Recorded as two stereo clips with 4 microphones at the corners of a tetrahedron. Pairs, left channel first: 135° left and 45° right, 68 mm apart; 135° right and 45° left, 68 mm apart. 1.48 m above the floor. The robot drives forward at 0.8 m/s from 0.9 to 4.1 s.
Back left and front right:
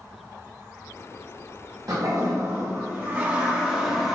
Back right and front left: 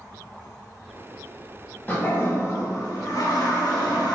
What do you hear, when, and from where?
1.9 s a toilet flushing: 75° right, 1.8 m; by 4.1 s 125° right, 2 m